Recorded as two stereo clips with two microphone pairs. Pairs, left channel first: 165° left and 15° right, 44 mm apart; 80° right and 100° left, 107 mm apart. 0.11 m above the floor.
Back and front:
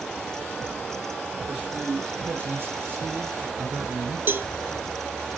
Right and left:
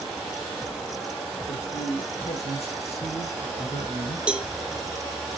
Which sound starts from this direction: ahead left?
A cowbell, at 4.3 s.